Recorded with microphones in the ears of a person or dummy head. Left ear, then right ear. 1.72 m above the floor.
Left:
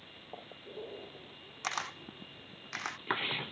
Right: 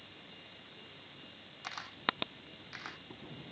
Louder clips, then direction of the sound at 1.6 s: Right 1 dB; 30° left (ahead or behind).